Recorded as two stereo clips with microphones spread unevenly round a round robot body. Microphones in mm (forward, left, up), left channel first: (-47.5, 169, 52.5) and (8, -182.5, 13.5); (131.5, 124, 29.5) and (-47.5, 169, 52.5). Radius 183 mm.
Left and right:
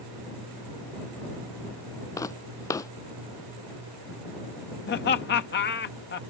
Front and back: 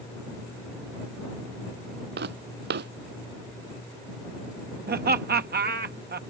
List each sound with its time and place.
2.2 s footsteps: 175° left
4.9 s laughter: 155° left